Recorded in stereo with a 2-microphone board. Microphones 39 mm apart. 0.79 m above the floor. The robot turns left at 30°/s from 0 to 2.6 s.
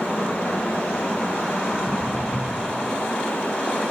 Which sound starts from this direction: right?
Footsteps, at 1.7 s.